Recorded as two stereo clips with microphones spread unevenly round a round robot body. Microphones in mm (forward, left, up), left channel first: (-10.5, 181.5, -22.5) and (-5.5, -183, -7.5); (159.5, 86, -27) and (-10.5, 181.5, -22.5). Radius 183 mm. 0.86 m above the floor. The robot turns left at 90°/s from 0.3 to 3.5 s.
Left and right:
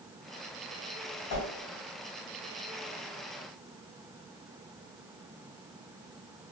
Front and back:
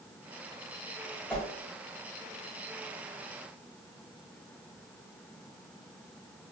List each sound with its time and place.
1.3 s a whoosh: 60° left, 1.1 m; by 1.5 s 40° left, 1.1 m